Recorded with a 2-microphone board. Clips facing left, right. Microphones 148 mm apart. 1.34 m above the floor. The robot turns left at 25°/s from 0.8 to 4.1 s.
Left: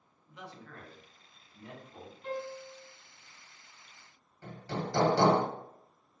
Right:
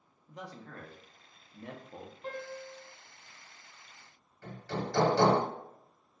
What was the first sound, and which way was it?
A man speaking, 40° right.